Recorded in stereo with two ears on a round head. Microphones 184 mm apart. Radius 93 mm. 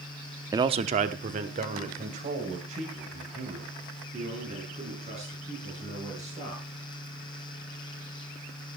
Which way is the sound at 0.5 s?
15° right (ahead or behind).